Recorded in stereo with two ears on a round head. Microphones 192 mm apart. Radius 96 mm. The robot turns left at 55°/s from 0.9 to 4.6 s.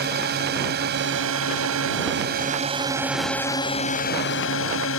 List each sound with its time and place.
0.0 s a drone: 50° right; by 5.0 s 105° left